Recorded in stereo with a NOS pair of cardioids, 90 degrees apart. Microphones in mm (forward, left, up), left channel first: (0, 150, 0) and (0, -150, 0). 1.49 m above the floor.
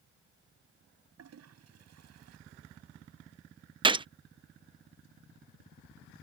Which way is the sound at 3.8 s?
15° right.